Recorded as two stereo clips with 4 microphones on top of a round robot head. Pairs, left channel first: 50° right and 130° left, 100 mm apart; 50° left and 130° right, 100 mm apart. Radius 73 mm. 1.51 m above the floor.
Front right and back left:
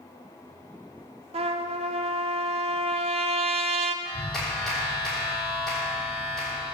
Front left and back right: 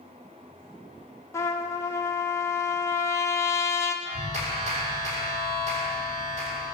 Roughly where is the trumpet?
Behind left.